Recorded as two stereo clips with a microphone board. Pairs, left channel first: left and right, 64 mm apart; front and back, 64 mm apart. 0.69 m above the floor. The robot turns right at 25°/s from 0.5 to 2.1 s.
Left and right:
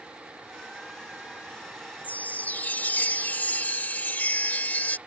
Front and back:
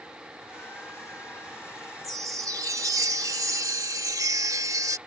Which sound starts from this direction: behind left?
A chime, at 2.0 s.